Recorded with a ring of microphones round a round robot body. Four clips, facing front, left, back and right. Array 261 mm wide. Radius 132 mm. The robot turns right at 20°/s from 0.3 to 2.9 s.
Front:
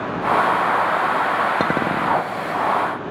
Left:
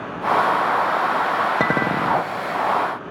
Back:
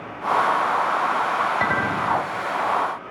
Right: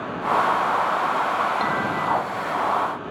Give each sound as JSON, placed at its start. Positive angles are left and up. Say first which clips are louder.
{"t": 1.6, "sound": "a clink", "louder": "left 3 dB, front 2 dB", "azimuth_deg": 40, "distance_m": 0.8}